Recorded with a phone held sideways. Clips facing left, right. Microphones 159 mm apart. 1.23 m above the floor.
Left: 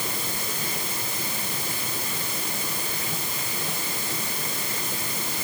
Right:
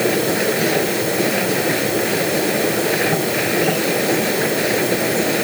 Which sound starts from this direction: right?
A machine running, at 0.0 s.